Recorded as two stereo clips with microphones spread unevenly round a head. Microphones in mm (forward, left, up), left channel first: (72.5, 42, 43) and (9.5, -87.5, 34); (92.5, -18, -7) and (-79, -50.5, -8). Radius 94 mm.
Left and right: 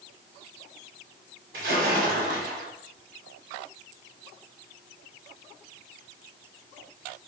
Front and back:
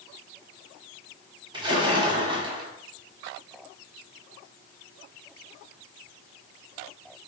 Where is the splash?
110° right, 1.1 m.